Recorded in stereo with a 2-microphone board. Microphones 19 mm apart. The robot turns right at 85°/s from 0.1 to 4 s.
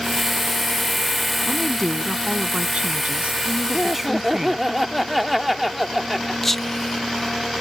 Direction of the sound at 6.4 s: 10° left (ahead or behind).